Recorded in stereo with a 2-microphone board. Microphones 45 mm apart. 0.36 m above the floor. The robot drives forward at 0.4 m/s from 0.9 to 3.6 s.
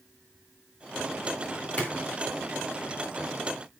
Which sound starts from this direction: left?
A splash, at 1.8 s.